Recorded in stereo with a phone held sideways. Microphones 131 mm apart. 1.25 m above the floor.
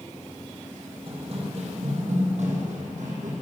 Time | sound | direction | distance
1.1 | running footsteps | 45° right (ahead or behind) | 2 m